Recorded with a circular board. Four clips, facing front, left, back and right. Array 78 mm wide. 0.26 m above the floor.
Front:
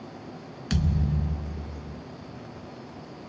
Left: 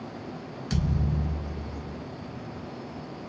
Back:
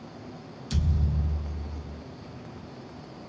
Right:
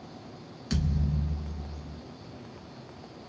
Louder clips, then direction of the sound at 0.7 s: Left 2 dB, front 4 dB; 5° left.